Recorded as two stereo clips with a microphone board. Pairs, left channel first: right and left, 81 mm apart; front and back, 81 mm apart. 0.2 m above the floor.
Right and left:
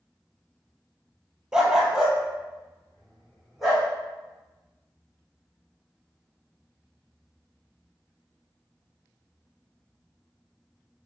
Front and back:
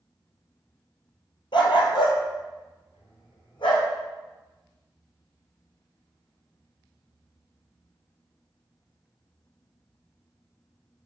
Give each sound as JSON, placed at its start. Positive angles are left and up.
{"t": 1.5, "sound": "a dog barking", "azimuth_deg": 10, "distance_m": 1.2}